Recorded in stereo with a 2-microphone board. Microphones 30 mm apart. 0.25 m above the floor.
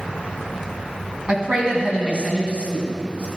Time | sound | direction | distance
1.3 | a man speaking | 40° right (ahead or behind) | 2.5 m